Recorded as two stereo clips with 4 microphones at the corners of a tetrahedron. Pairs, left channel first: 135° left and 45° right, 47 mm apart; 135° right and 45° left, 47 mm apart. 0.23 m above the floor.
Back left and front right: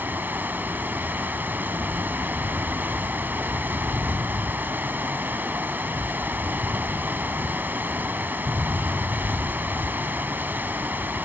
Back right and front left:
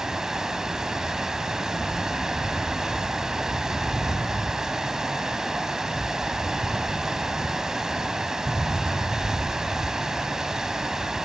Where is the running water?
30° right, 1.3 m.